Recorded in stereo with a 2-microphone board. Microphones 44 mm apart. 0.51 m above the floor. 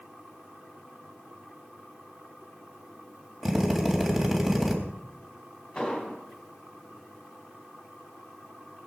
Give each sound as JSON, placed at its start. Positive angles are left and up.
{"t": 3.4, "sound": "a drill", "side_deg": -5, "distance_m": 3.5}
{"t": 5.8, "sound": "an explosion", "side_deg": 20, "distance_m": 3.0}